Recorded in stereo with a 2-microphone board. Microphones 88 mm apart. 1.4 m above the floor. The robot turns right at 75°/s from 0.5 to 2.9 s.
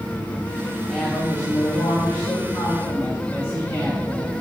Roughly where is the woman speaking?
Ahead.